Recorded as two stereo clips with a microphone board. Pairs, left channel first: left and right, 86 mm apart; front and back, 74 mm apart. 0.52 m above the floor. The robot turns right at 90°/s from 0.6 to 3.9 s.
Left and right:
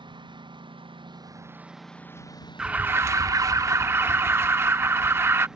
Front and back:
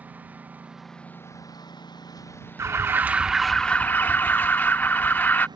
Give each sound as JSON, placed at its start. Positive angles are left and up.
{"t": 0.0, "sound": "a lawn mower", "azimuth_deg": -110}
{"t": 2.6, "sound": "an alarm", "azimuth_deg": -165}